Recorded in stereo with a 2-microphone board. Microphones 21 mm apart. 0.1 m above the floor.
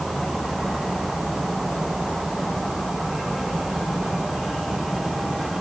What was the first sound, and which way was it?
Only background noise.